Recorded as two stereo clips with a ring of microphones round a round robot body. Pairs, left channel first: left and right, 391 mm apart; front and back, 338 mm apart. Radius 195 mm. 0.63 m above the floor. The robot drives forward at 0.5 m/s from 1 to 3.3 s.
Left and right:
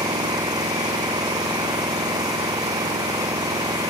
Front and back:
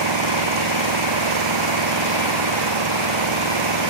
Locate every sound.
0.0 s an engine running: 170° right